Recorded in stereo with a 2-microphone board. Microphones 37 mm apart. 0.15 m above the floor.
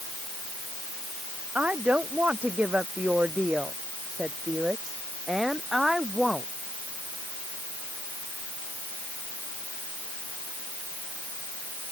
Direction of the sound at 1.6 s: 40° right (ahead or behind).